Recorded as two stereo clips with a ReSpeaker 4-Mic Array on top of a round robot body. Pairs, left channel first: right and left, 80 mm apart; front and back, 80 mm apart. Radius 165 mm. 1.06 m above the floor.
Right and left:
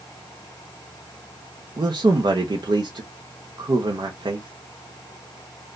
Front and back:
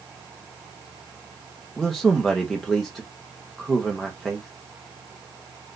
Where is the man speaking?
90° left, 1.1 m.